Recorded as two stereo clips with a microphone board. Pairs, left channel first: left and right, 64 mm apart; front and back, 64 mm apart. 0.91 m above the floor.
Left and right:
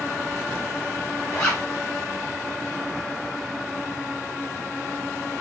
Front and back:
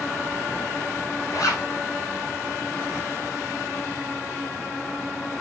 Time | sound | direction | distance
1.3 | a zipper | 25° left | 3 m